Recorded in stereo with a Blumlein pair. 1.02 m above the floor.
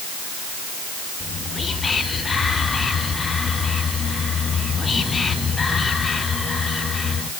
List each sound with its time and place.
1.2 s whispering: 15° left, 0.7 m